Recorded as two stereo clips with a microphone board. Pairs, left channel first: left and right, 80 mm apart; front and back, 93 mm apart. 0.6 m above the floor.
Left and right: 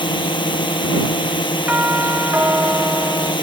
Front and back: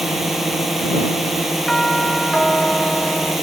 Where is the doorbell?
80° right.